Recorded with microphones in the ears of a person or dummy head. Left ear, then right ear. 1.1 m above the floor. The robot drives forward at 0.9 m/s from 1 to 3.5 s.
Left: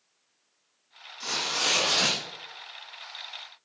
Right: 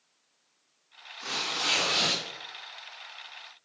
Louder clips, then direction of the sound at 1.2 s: Left 2 dB; 45° left (ahead or behind).